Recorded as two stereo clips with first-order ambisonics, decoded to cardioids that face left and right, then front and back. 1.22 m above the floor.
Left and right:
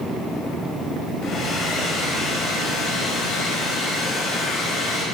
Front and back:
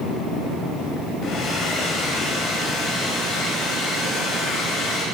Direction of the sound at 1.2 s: 40° left.